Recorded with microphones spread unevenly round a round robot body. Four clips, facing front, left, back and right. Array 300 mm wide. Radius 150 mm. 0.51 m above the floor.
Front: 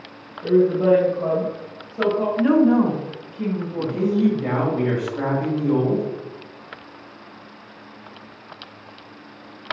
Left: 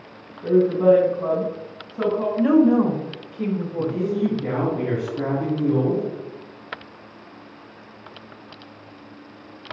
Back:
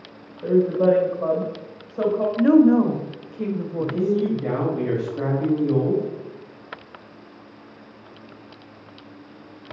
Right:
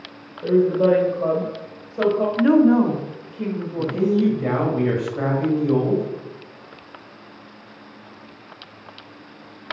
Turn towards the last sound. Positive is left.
turn(degrees=-80)